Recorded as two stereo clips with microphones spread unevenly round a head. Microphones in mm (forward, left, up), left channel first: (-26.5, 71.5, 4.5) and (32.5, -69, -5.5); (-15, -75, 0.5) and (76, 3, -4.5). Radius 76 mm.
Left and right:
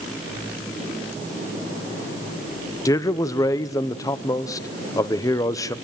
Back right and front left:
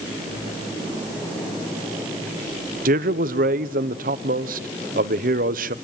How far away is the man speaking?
About 1.0 m.